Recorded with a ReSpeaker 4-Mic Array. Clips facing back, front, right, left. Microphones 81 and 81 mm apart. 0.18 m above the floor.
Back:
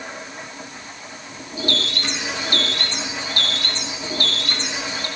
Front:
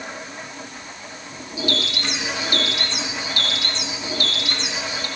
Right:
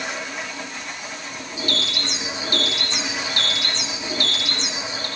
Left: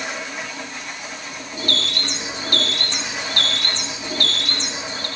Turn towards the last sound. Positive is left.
turn(degrees=130)